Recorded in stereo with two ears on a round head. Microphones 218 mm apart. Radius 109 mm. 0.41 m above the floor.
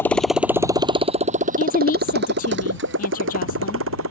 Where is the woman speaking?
35° left (ahead or behind).